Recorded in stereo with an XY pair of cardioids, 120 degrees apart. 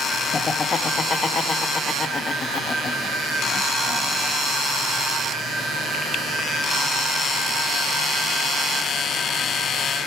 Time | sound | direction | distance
0.3 | laughter | 35° left | 1.0 m